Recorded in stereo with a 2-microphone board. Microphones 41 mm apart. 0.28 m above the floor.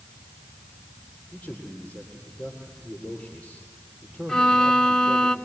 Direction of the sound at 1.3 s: 30° left (ahead or behind).